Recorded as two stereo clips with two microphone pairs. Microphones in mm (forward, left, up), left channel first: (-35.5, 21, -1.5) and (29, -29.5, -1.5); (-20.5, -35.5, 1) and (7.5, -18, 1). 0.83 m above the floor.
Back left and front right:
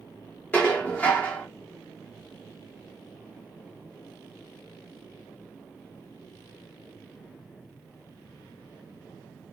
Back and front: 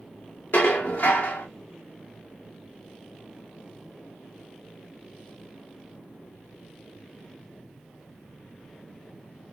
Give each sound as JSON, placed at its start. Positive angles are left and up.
{"t": 0.5, "sound": "dishes clattering", "azimuth_deg": -150, "distance_m": 0.8}